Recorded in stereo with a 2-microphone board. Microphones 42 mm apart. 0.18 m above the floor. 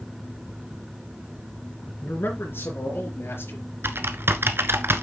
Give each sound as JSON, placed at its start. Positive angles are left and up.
{"t": 2.0, "sound": "a man speaking", "side_deg": 60, "distance_m": 3.5}
{"t": 3.8, "sound": "typing on a keyboard", "side_deg": -65, "distance_m": 1.0}